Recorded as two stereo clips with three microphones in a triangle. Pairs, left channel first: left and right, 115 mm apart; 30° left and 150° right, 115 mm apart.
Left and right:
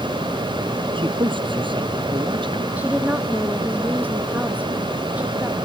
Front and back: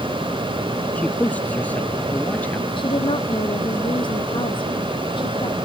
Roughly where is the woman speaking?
Ahead.